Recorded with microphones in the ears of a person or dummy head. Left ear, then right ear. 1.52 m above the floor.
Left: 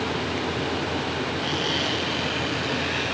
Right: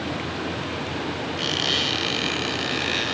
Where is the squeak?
45° right (ahead or behind), 4.5 m.